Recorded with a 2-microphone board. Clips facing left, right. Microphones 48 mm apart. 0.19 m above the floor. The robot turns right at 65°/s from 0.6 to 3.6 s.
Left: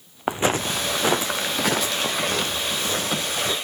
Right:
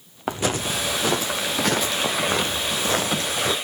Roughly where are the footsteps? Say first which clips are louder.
Left 2 dB; centre.